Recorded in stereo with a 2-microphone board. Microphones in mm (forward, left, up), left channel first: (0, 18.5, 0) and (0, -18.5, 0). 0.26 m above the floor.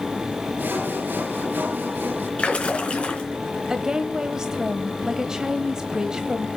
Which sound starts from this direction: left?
A splash, at 2.4 s.